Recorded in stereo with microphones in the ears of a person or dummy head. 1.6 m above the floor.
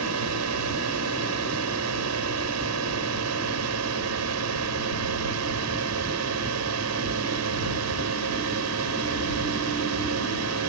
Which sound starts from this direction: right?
A drone, at 0.0 s.